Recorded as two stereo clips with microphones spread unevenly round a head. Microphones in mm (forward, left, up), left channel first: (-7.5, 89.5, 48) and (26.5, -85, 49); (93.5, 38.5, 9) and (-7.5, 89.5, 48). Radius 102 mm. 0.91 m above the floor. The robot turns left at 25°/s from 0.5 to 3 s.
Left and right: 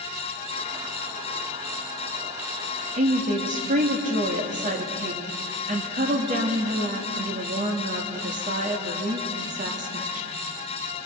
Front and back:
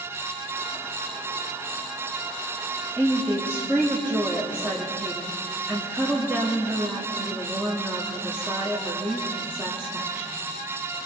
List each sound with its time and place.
3.0 s a woman speaking: 120° right, 1.7 m